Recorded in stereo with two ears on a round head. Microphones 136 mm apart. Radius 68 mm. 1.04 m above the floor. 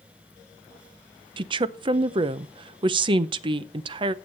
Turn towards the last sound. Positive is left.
turn(degrees=-30)  # may be behind; listen again after turning